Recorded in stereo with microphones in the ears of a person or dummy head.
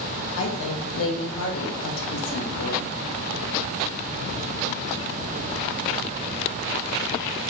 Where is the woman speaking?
75° left (ahead or behind), 1.1 m.